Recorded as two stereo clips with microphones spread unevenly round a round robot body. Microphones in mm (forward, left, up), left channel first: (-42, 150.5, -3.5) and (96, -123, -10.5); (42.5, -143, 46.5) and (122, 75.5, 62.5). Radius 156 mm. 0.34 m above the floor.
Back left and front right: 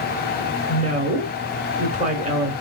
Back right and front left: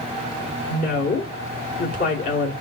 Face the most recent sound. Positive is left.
turn(degrees=-115)